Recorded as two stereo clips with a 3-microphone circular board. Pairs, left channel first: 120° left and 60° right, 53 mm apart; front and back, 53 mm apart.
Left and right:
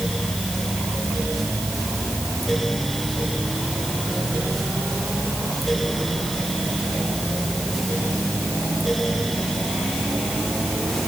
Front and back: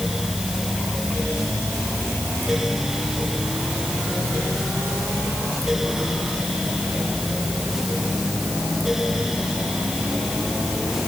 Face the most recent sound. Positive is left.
No sound to turn to.